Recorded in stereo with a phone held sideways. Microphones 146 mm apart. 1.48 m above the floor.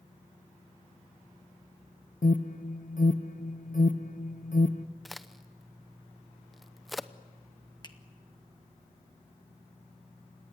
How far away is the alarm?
About 0.9 m.